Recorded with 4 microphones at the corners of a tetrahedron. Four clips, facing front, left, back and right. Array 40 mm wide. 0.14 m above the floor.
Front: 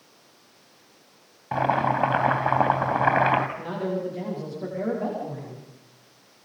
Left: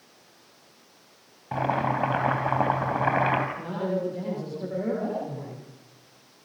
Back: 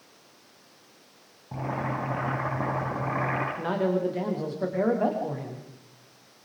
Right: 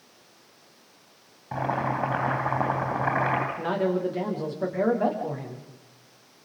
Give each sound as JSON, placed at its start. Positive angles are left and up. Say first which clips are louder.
{"t": 1.5, "sound": "boiling", "louder": "left 2 dB, front 9 dB", "azimuth_deg": 10, "distance_m": 4.0}
{"t": 3.6, "sound": "a man speaking", "louder": "right 3 dB, back 3 dB", "azimuth_deg": -130, "distance_m": 9.5}